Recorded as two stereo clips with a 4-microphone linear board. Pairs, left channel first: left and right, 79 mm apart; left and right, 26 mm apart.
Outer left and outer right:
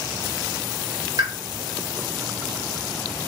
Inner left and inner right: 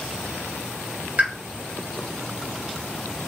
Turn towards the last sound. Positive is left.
turn(degrees=-55)  # may be behind; listen again after turning